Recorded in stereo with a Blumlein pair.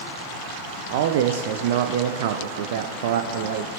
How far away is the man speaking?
About 0.6 m.